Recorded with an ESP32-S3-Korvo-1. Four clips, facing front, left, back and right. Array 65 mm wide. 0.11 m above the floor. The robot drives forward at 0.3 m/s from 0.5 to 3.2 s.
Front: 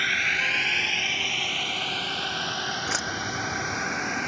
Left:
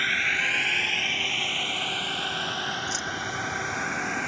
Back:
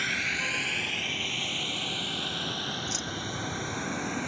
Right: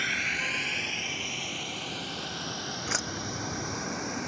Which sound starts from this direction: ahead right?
Keys jangling, at 2.9 s.